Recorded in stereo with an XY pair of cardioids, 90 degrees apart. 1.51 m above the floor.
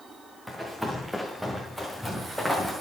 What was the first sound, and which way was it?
Running footsteps, 5° right.